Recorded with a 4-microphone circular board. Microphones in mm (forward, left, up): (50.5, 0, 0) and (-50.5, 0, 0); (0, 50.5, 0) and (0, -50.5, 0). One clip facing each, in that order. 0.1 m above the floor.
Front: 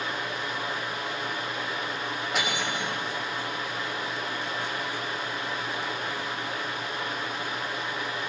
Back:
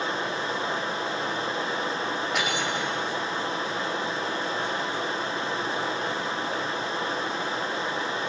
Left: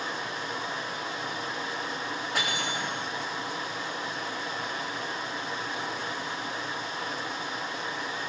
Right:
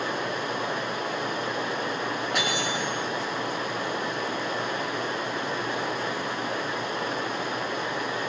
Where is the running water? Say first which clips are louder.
Back 3 dB, right 5 dB; 120° right, 0.8 m.